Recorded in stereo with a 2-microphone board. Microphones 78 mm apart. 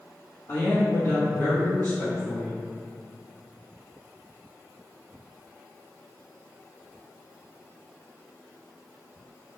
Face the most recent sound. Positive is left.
turn(degrees=40)  # may be behind; listen again after turning